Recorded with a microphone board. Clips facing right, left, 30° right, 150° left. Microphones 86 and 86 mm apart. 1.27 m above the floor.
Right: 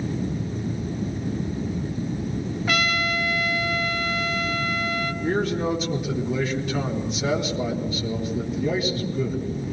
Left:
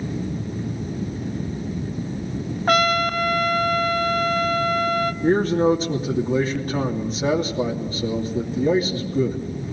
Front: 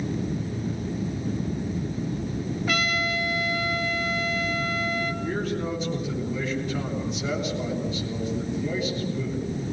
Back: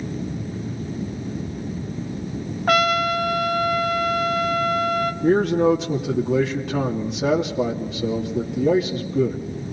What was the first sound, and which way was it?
A trumpet, 125° left.